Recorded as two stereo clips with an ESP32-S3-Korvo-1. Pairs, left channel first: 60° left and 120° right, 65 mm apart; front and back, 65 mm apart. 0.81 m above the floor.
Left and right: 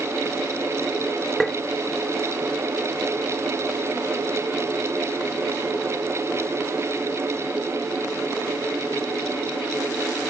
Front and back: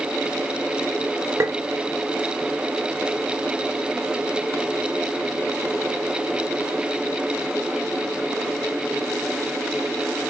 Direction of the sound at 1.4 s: 150° left.